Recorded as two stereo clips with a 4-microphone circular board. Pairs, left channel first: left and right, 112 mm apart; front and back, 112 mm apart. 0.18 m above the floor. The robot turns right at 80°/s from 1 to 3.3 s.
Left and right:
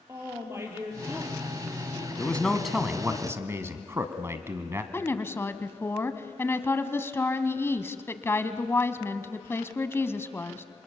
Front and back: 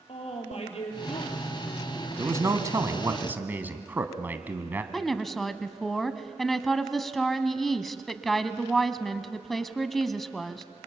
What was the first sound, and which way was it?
A woman speaking, 25° right.